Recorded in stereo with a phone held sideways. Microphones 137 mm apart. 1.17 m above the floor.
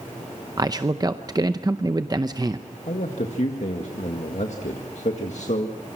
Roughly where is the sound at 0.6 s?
Right.